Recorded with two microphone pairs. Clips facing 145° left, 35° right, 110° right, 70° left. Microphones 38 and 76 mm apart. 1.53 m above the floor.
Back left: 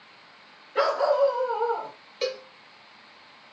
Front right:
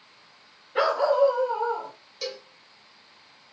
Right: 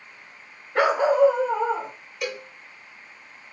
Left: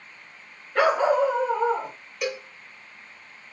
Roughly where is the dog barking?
Right.